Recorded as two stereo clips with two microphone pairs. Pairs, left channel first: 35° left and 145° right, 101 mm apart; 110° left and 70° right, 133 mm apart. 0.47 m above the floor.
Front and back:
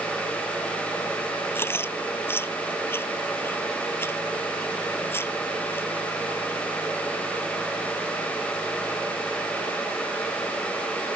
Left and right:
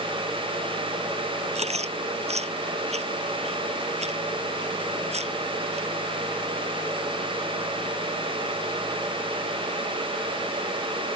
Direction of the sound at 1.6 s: 35° right.